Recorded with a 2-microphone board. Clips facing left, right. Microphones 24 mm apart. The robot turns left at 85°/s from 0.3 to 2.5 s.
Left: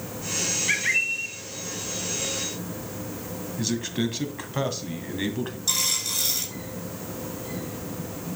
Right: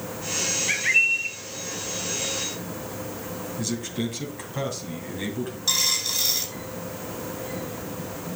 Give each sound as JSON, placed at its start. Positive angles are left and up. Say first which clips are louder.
{"t": 0.7, "sound": "a bird", "louder": "right 4 dB", "azimuth_deg": 5, "distance_m": 1.6}
{"t": 3.6, "sound": "a man speaking", "louder": "left 3 dB", "side_deg": 30, "distance_m": 2.0}
{"t": 5.7, "sound": "a dropped coin", "louder": "right 3 dB", "side_deg": -25, "distance_m": 5.0}